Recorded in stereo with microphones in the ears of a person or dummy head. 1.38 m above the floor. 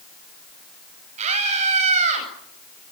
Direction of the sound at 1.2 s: 40° right (ahead or behind).